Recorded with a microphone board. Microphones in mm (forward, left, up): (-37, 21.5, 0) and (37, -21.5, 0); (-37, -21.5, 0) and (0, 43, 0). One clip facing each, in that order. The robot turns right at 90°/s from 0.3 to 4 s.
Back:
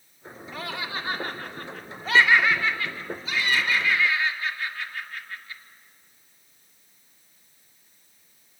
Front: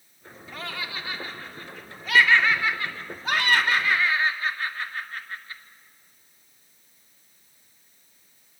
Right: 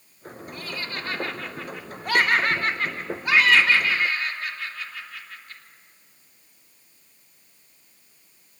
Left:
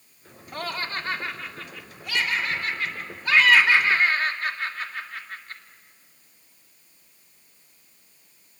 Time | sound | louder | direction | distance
0.5 | laughter | back 2 dB, left 4 dB | 60° left | 2 m